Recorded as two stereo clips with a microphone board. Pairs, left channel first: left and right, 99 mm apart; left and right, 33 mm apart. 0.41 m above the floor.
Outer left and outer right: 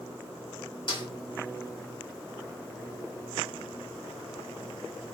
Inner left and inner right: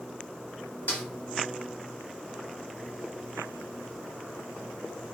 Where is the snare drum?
50° left (ahead or behind), 1.2 m.